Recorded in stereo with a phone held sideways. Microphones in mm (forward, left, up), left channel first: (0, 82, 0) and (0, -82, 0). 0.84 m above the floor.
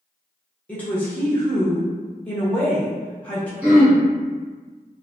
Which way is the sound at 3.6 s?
10° right (ahead or behind).